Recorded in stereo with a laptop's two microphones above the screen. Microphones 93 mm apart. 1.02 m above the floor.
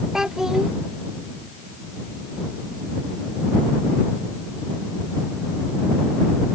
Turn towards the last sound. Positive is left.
turn(degrees=-5)  # may be behind; listen again after turning